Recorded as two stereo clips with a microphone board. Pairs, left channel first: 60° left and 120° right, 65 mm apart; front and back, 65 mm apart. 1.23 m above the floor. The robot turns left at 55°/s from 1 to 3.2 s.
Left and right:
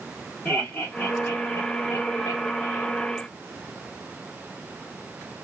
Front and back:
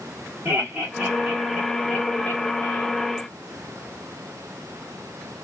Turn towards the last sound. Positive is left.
turn(degrees=0)